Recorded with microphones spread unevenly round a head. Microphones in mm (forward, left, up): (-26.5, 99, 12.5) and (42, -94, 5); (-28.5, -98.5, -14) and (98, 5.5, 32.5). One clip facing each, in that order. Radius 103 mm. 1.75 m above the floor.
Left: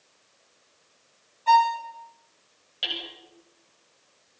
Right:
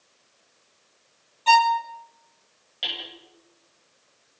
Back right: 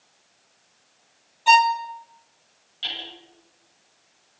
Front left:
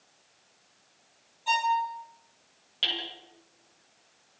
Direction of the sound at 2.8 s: 25° left.